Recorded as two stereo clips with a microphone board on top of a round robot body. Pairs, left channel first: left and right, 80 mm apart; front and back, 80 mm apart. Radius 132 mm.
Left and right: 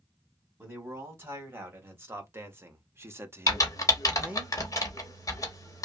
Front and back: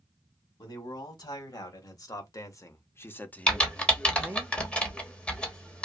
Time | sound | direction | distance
0.6 | a man speaking | 30° right | 1.9 m
3.5 | typing on a keyboard | 70° left | 1.3 m